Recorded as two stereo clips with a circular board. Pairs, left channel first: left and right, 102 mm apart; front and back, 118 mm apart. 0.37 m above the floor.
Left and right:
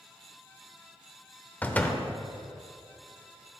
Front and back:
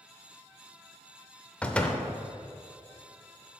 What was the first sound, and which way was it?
A door slam, 55° left.